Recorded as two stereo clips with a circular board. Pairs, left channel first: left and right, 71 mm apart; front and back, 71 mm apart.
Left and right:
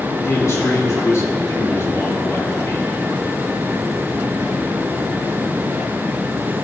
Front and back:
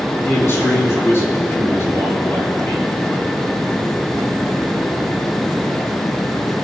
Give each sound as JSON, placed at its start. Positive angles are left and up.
{"t": 0.2, "sound": "a man speaking", "azimuth_deg": 50, "distance_m": 3.5}